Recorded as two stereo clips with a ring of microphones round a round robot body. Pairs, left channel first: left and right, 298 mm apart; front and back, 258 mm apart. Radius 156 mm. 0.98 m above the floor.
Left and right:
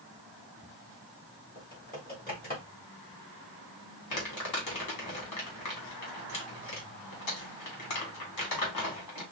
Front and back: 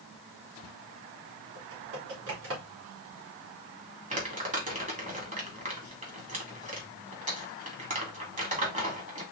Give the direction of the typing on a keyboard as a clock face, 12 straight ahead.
7 o'clock.